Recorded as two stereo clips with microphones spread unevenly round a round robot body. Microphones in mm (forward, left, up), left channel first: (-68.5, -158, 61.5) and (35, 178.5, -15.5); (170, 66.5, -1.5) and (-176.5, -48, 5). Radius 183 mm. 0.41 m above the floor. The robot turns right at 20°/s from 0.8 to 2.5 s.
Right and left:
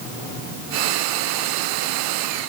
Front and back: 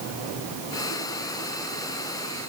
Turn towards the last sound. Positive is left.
No sound to turn to.